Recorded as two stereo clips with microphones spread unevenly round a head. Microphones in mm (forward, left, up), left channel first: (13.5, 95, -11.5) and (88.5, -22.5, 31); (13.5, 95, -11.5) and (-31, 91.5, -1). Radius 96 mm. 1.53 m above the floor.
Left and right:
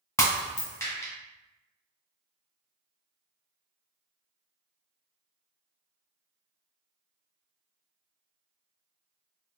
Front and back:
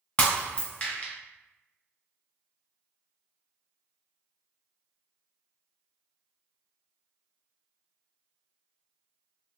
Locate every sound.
0.2 s breaking glass: 40° left, 1.7 m